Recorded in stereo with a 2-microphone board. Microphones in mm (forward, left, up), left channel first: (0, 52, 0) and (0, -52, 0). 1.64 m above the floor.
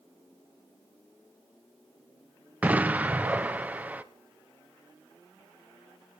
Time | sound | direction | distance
2.6 | an explosion | 15° right (ahead or behind) | 0.7 m